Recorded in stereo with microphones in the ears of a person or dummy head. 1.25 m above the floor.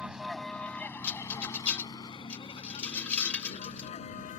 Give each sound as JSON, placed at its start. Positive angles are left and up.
{"t": 0.0, "sound": "a vehicle", "side_deg": -5}
{"t": 1.0, "sound": "a rattle", "side_deg": 5}